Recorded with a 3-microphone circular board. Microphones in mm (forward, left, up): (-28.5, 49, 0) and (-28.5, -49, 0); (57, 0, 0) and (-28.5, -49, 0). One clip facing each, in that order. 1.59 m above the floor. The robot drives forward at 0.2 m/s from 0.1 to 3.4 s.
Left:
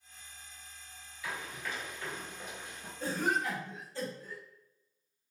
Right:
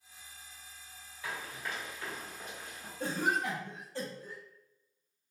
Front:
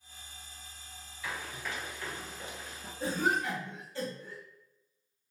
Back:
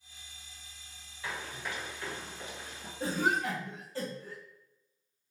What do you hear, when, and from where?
1.2 s running footsteps: 110° right, 1.8 m; by 2.9 s 130° left, 1.5 m
3.0 s a cough: 100° right, 0.9 m; by 4.4 s 105° right, 0.9 m